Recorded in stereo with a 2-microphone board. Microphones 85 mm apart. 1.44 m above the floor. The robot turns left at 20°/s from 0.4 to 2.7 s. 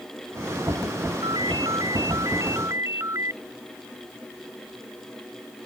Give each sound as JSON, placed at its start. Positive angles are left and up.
{"t": 1.2, "sound": "a ringtone", "side_deg": -65}